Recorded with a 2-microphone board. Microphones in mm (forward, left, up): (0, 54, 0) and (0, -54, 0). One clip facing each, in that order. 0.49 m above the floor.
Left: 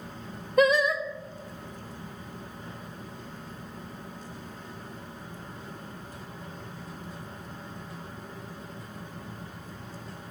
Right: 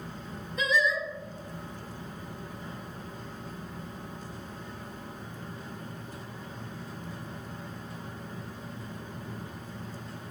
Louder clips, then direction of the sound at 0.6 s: Left 6 dB; 60° left (ahead or behind).